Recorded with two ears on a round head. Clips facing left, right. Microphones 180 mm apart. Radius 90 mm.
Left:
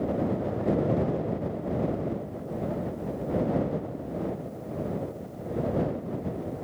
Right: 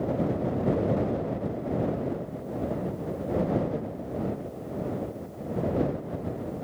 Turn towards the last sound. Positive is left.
No sound to turn to.